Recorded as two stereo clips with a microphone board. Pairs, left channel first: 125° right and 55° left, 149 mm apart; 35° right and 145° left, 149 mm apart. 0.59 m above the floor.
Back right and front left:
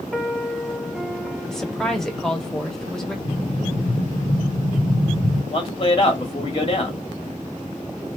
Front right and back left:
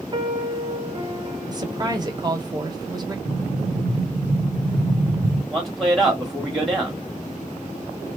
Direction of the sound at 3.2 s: 90° left.